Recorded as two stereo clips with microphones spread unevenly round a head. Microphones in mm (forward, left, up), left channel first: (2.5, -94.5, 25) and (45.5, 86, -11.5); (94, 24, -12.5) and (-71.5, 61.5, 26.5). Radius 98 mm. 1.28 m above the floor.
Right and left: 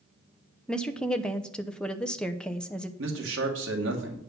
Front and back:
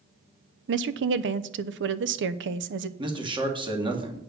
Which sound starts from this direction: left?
A man speaking, at 3.0 s.